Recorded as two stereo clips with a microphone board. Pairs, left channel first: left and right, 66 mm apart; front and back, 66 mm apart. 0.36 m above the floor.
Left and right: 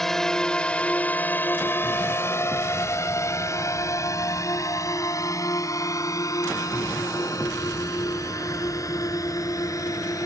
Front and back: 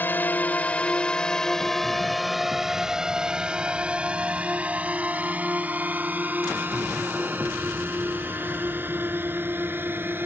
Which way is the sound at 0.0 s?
10° left.